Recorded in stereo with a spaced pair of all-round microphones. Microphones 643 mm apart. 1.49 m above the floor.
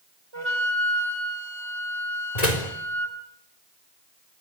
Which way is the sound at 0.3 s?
45° right (ahead or behind).